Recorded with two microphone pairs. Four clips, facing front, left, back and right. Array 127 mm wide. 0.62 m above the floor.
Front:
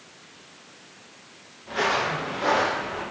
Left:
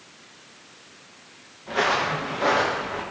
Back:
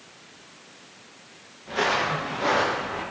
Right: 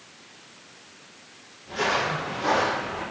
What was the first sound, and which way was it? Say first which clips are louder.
Footsteps: left 2 dB, even; 80° left.